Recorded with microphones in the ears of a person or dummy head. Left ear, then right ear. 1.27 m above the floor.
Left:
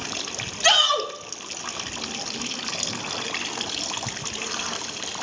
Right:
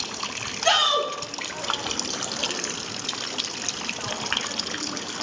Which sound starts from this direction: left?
A shout, at 0.6 s.